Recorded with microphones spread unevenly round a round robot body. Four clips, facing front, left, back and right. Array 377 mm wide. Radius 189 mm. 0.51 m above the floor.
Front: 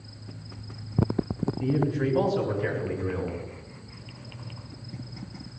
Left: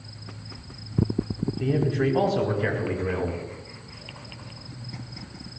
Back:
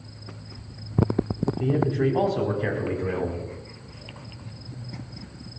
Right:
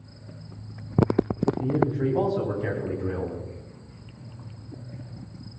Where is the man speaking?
125° left, 5 m; by 3.4 s 135° left, 5.5 m.